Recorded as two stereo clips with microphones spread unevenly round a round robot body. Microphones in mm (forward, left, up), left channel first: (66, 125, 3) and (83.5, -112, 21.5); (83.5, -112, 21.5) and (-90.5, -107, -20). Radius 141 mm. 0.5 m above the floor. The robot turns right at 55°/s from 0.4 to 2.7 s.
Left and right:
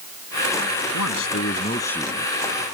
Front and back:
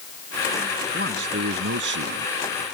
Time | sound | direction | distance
0.9 | a man speaking | 125° left | ?